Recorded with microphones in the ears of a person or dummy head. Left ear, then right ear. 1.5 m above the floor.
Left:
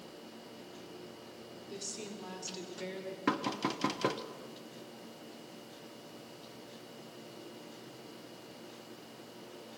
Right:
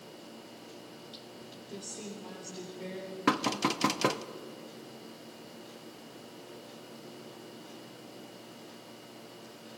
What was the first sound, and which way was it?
A woman speaking, 50° left (ahead or behind).